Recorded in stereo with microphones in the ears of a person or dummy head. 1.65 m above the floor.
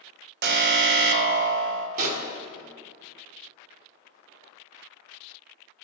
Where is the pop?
45° right (ahead or behind), 0.8 m.